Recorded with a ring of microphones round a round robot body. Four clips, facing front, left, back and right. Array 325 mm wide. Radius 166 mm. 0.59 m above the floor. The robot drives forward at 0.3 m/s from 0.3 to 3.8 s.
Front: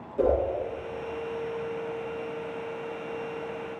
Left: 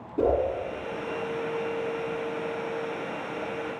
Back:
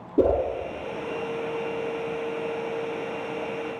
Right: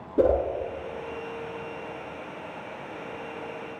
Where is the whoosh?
155° right, 1.1 m.